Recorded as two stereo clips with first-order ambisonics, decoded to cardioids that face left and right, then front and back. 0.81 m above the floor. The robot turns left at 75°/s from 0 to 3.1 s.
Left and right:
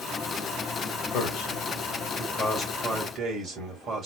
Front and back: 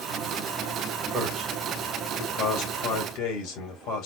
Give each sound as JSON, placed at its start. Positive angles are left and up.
{"t": 1.1, "sound": "a man speaking", "azimuth_deg": 125, "distance_m": 2.0}